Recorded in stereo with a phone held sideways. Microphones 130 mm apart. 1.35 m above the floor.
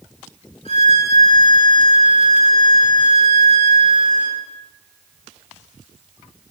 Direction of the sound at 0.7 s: 50° left (ahead or behind).